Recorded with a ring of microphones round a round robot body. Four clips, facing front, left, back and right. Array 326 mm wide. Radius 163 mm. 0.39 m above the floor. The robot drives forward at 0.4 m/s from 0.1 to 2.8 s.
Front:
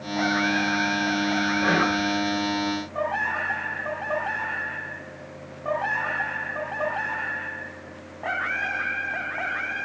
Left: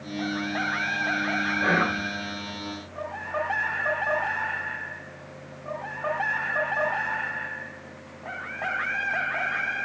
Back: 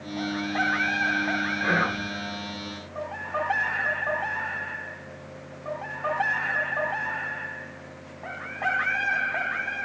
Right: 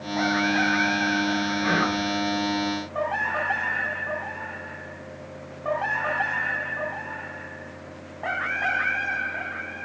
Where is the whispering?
50° left, 1.6 m; by 2.1 s 55° left, 1.5 m.